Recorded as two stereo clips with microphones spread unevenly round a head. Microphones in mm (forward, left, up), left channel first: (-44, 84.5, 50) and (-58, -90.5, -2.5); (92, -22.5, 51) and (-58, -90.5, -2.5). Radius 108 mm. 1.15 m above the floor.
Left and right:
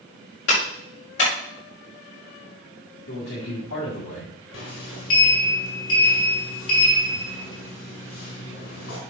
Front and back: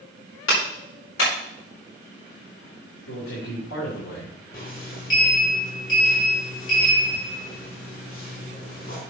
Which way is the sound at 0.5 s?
45° left.